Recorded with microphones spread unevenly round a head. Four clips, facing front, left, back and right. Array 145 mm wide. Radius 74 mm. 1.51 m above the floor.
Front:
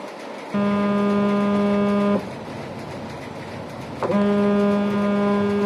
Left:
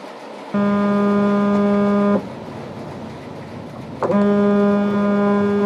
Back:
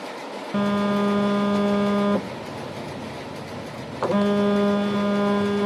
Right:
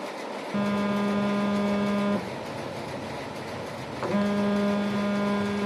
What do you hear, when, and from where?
0.5 s a phone buzzing: 85° left, 0.5 m